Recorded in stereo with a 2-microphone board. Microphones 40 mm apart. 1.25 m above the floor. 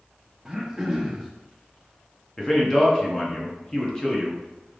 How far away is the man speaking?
About 1.0 m.